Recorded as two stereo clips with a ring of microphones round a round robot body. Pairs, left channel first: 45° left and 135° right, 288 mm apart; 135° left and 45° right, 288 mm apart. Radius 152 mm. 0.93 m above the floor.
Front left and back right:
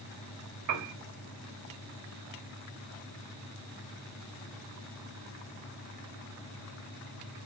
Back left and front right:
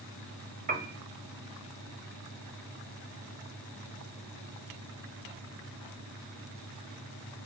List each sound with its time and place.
0.7 s a piano: 110° right, 1.5 m